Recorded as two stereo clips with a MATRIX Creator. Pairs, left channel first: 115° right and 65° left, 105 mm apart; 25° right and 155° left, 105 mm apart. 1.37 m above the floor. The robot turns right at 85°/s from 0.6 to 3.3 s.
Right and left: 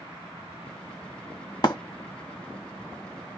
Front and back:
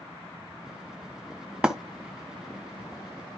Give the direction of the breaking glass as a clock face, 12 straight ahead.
4 o'clock.